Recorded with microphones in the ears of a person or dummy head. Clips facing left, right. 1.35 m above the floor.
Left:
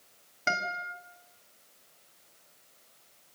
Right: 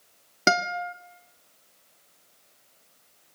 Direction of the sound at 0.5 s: 70° right (ahead or behind).